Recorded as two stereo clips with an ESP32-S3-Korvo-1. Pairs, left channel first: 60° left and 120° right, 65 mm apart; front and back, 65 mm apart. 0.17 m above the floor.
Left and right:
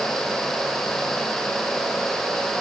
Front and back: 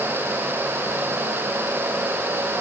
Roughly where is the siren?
I don't hear a siren.